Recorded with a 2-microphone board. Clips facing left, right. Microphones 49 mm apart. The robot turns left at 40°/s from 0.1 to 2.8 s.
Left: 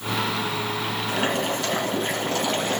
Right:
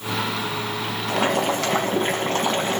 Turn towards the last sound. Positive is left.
turn(degrees=-155)